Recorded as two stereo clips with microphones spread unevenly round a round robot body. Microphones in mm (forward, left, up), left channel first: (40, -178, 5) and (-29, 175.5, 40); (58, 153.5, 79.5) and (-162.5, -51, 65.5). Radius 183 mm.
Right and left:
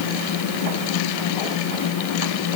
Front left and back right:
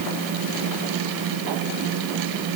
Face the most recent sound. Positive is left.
No sound to turn to.